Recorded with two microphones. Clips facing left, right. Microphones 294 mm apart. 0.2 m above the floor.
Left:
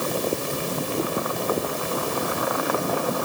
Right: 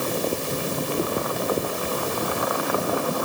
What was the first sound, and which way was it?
Only background noise.